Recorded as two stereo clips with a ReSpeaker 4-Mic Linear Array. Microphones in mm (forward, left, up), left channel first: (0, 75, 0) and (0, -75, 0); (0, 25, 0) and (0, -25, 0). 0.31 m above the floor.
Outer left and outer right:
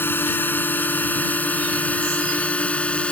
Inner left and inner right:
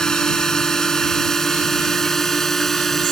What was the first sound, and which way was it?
A drone, 15° left (ahead or behind).